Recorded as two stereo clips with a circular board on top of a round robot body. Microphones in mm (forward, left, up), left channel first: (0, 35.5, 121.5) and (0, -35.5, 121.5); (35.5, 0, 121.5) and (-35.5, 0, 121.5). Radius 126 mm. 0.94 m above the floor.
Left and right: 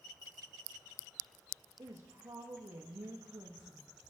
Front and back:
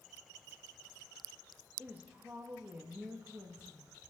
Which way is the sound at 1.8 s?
120° right.